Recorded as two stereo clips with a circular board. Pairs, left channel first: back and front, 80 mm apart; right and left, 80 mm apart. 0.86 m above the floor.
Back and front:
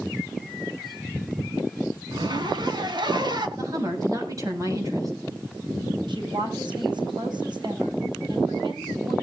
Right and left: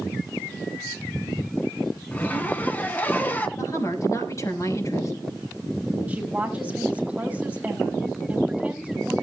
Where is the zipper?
25° right, 1.9 m.